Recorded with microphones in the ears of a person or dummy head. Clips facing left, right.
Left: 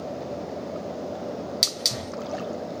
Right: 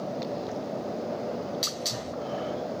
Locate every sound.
1.6 s a hiss: 30° left (ahead or behind), 0.7 m